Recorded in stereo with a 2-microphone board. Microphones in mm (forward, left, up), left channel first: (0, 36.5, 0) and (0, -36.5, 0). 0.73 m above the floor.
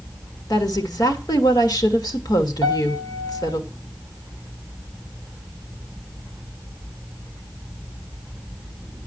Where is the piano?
70° left (ahead or behind), 3 m.